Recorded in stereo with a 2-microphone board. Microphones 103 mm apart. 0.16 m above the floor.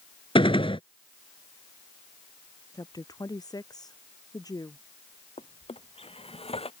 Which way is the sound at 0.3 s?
60° left (ahead or behind).